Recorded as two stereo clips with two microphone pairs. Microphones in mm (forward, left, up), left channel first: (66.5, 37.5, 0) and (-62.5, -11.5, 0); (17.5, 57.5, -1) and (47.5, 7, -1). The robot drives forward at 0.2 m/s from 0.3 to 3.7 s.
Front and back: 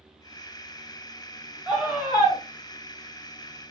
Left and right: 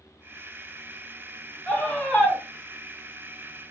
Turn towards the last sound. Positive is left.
turn(degrees=160)